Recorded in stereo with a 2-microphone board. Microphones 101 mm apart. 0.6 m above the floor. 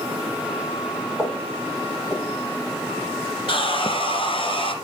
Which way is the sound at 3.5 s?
55° left (ahead or behind).